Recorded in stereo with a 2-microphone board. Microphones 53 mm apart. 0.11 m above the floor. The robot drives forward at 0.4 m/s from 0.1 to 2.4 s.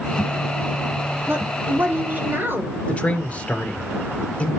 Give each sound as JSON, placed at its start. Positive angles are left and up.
{"t": 1.3, "sound": "a woman speaking", "side_deg": -45, "distance_m": 2.0}
{"t": 2.9, "sound": "a man speaking", "side_deg": 30, "distance_m": 2.0}